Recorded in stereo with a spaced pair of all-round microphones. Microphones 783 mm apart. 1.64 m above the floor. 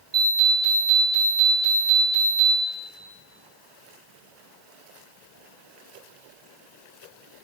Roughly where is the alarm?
Right.